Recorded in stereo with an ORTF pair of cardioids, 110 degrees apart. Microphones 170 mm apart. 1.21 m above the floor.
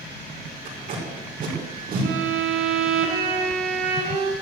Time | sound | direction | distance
0.7 | tape being pulled | 55° right | 5 m
2.0 | a violin | 70° right | 3.5 m